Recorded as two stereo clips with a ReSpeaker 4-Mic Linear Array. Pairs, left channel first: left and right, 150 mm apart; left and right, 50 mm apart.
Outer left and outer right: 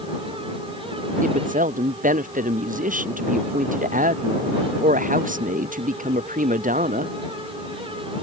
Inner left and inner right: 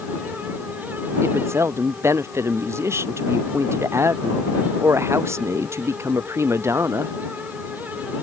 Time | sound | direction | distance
1.2 | a woman speaking | 60° right (ahead or behind) | ?